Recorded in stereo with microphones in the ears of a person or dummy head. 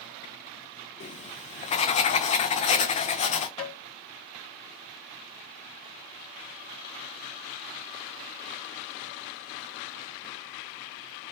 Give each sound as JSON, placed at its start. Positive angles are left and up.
{"t": 1.0, "sound": "writing", "side_deg": 40, "distance_m": 0.6}
{"t": 3.6, "sound": "tapping", "side_deg": 35, "distance_m": 2.5}